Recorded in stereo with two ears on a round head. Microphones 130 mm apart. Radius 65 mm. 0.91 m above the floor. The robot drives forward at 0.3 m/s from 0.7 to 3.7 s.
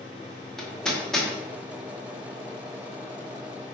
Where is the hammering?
5° left (ahead or behind), 1.6 m.